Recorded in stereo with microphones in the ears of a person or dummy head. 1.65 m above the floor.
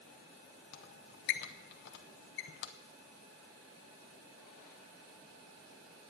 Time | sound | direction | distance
0.7 | a squeak | 45° left (ahead or behind) | 0.7 m